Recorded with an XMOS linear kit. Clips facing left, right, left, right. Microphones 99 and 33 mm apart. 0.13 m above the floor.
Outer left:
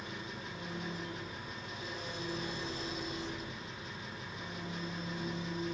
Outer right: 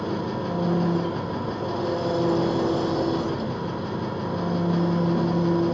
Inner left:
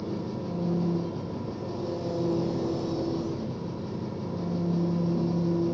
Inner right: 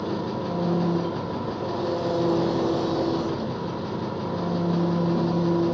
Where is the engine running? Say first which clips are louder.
Outer right 17 dB, inner right 5 dB; 65° right (ahead or behind), 1.0 m.